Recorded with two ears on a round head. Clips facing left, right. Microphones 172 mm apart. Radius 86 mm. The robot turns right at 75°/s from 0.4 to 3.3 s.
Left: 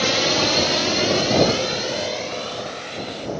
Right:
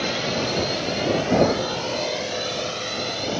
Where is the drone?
60° left (ahead or behind); by 3.4 s 75° right (ahead or behind).